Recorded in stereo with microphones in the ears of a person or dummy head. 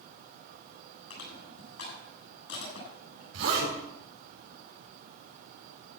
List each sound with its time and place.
1.1 s crushing: 70° left (ahead or behind), 9.5 m
3.3 s a zipper: 65° right (ahead or behind), 7 m